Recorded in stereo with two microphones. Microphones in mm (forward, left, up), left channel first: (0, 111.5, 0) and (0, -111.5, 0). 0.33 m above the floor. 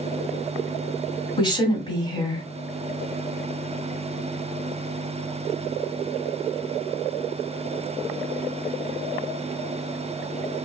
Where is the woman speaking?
20° left (ahead or behind), 1.7 m.